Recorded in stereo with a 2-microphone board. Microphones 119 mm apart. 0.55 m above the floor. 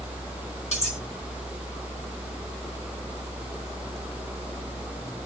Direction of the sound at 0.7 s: 65° left (ahead or behind).